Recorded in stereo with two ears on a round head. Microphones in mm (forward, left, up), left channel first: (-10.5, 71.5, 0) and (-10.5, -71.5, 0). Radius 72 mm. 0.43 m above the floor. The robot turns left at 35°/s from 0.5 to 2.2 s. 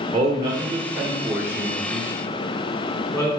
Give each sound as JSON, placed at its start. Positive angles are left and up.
{"t": 0.1, "sound": "a man speaking", "side_deg": -25, "distance_m": 1.7}